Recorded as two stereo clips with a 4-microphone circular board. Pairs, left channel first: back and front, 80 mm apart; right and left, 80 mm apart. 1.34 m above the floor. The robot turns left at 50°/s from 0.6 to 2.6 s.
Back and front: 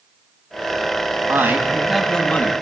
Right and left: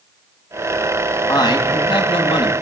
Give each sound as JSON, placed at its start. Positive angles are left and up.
{"t": 1.3, "sound": "a man speaking", "azimuth_deg": -55, "distance_m": 2.5}